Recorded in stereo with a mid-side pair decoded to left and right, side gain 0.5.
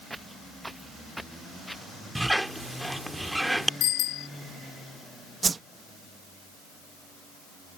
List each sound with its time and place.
0.1 s footsteps: 10° right; by 1.9 s straight ahead
2.1 s a squeak: 5° right
3.8 s a bicycle bell: 65° left
5.4 s a whoosh: 30° right